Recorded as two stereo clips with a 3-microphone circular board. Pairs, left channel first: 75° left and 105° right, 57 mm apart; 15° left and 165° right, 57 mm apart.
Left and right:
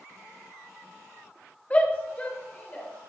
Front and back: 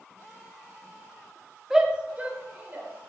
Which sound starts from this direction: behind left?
A shout, at 1.7 s.